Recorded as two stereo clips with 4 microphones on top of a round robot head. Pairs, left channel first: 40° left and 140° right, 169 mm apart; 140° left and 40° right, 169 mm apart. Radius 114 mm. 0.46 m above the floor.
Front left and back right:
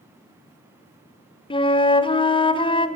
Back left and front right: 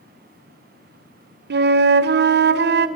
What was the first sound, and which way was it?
A flute, 25° right.